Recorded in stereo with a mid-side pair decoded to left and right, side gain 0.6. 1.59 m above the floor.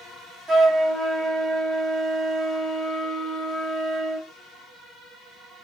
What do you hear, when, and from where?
0.5 s a flute: 35° right, 1.0 m